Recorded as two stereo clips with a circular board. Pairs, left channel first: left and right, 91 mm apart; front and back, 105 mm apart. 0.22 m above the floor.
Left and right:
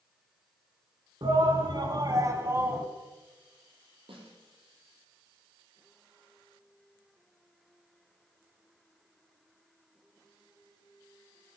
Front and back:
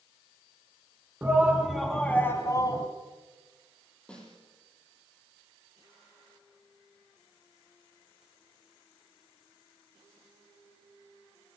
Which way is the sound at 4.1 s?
80° right.